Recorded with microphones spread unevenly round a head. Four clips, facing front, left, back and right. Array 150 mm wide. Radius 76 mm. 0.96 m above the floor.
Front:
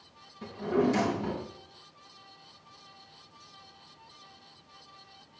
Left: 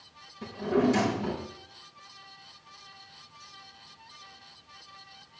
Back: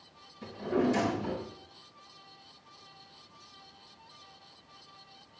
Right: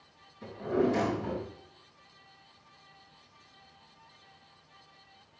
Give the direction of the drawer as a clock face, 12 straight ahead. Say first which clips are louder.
Left 3 dB, front 2 dB; 10 o'clock.